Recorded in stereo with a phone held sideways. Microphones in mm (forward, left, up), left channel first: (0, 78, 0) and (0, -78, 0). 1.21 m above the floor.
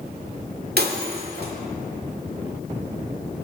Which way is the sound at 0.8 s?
75° right (ahead or behind).